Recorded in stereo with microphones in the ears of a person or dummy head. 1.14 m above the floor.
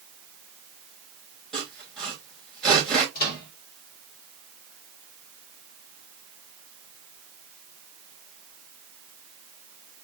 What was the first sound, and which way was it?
Sawing, centre (ahead or behind).